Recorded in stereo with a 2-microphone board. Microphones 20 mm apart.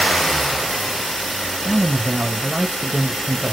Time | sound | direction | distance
1.6 | a man speaking | 30° right (ahead or behind) | 0.8 m